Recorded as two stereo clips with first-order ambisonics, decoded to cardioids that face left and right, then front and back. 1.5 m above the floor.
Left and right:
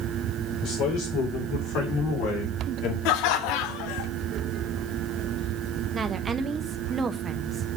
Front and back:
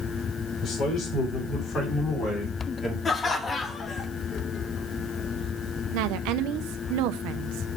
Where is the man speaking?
55° left, 4 m; by 3.0 s 75° left, 2.5 m.